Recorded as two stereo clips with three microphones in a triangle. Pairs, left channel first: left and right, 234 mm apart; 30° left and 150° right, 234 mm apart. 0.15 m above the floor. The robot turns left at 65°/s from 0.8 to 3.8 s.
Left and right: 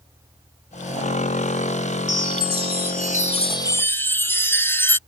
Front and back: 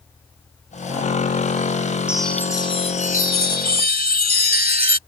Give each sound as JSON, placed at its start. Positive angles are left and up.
{"t": 2.1, "sound": "a chime", "azimuth_deg": 125}